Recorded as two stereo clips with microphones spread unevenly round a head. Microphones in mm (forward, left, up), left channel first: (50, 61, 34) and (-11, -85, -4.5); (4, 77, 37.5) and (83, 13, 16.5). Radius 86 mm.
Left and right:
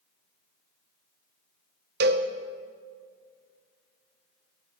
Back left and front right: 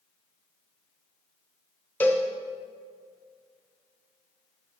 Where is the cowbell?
140° right, 0.9 m.